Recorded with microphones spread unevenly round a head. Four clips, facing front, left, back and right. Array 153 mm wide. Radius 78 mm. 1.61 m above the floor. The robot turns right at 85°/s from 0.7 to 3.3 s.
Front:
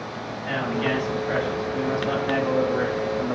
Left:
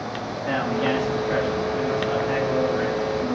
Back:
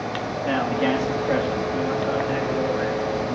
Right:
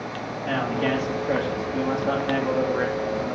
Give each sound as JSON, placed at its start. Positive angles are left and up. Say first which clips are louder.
{"t": 0.5, "sound": "a man speaking", "louder": "left 1 dB, back 3 dB", "azimuth_deg": 145, "distance_m": 2.5}